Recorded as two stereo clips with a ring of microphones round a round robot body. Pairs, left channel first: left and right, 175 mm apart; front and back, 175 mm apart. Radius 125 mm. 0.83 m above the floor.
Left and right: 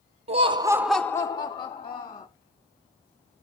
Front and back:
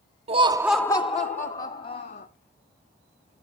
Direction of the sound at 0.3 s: 135° right.